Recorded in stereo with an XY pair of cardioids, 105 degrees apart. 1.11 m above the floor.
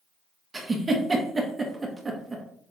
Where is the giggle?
20° right, 0.9 m.